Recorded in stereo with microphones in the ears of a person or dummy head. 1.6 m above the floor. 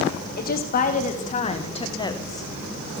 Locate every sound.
0.4 s a woman speaking: 55° left (ahead or behind), 2 m; by 2.5 s 15° left (ahead or behind), 1.3 m